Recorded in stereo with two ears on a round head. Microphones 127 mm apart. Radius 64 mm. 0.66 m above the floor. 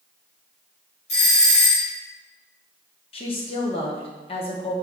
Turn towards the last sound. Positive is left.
turn(degrees=40)  # may be behind; listen again after turning